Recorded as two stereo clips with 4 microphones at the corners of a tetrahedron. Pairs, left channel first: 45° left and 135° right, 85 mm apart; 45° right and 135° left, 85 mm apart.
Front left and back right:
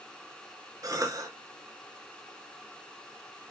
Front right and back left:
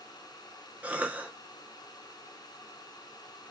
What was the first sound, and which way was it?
A cough, 160° right.